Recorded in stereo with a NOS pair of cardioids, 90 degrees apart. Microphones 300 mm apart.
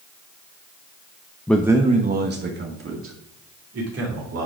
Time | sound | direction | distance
1.5 | a man speaking | 5° left | 0.7 m